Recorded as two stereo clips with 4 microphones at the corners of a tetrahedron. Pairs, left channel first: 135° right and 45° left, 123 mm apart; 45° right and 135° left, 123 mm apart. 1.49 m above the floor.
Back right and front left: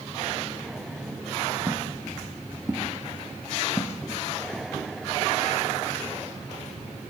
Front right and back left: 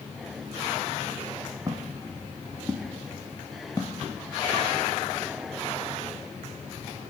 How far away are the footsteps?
About 2.5 m.